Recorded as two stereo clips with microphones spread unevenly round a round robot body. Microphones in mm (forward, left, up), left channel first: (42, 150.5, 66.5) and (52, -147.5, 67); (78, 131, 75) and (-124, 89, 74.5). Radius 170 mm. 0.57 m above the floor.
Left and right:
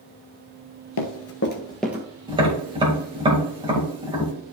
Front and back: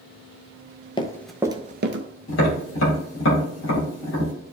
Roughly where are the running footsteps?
Left.